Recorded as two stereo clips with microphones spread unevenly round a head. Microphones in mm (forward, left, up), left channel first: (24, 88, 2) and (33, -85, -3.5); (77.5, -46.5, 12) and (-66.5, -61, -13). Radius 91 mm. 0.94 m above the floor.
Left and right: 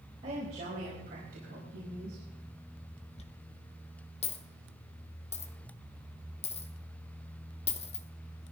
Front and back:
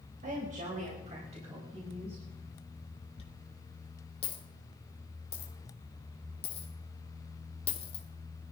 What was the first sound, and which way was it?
A woman speaking, 145° right.